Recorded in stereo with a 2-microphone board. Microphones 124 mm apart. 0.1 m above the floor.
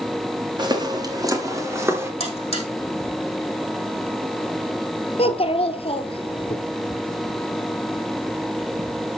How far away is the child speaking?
About 1.3 m.